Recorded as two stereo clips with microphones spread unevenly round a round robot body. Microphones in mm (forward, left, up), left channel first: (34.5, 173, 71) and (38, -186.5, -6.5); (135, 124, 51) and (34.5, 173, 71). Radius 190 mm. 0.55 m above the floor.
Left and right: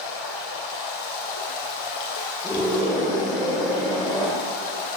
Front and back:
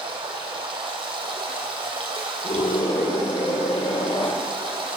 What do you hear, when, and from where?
0.0 s running water: 115° left, 2.5 m
2.4 s a scream: 5° right, 1.9 m